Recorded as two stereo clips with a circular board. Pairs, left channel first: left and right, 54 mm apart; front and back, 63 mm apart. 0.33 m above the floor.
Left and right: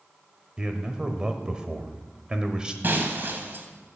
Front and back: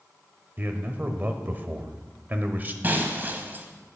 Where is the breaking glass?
130° right, 1.3 m.